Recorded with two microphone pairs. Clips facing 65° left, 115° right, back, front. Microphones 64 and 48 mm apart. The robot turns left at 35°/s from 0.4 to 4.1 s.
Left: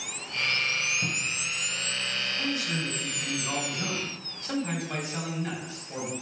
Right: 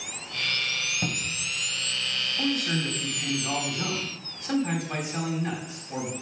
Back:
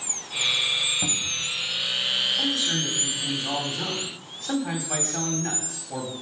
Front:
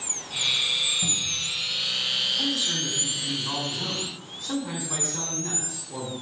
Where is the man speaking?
130° right, 3 m; by 6.1 s 170° left, 3 m.